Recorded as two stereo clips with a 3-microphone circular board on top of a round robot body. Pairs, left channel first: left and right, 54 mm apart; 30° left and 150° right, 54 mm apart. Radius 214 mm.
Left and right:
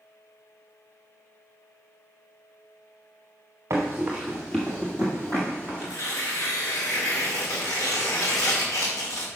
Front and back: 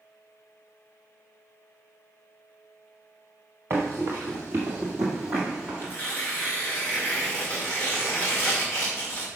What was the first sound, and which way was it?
Running footsteps, 110° right.